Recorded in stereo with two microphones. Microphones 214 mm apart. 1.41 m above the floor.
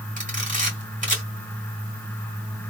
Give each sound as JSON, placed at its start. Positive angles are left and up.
{"t": 0.2, "sound": "a camera shutter", "side_deg": -35, "distance_m": 2.0}